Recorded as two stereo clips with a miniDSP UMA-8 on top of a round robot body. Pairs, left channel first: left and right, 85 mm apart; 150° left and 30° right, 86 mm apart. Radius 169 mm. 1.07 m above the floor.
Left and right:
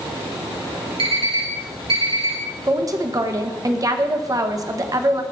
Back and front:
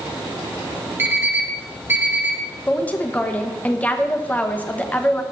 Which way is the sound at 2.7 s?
140° right.